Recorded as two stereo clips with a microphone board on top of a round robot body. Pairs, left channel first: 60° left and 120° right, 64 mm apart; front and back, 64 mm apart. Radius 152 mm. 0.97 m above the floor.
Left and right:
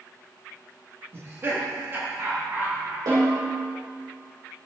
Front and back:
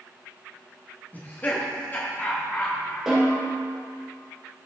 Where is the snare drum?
100° right, 4 m.